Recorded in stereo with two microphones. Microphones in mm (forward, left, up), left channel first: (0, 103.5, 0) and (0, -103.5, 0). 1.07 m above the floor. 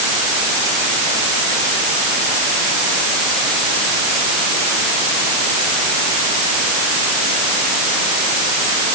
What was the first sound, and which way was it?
Only background noise.